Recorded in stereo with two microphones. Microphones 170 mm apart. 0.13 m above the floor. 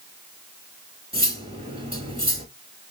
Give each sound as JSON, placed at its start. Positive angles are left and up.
{"t": 1.1, "sound": "cutlery clinking", "side_deg": -35, "distance_m": 1.5}